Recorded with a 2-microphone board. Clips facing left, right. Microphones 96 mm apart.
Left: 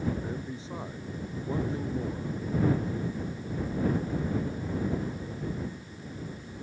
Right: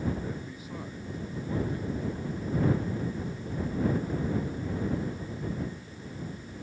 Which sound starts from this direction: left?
A man speaking, at 0.2 s.